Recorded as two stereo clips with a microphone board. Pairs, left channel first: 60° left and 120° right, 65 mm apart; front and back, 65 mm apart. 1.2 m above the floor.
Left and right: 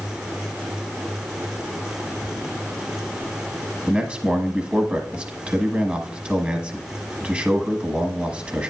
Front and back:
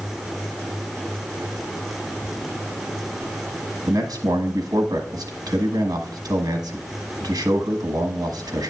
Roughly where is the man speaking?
Behind.